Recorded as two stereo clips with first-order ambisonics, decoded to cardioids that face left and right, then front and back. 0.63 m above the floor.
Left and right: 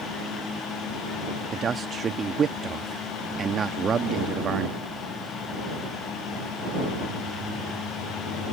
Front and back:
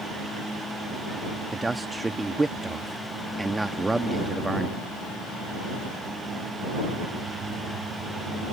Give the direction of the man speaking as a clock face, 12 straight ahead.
4 o'clock.